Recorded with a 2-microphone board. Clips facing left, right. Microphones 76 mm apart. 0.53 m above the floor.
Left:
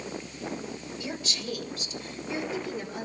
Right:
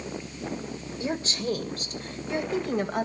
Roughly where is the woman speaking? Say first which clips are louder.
Right 8 dB; right.